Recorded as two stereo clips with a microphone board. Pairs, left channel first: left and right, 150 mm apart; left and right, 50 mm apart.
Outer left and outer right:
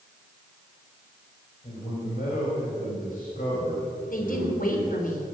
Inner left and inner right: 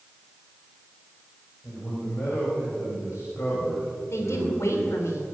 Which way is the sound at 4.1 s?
60° left (ahead or behind).